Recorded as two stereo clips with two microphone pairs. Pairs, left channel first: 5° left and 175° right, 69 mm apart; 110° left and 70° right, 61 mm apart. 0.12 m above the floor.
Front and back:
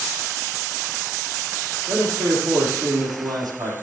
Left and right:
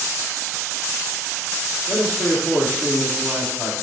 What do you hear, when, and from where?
1.9 s a man speaking: 165° left, 4.5 m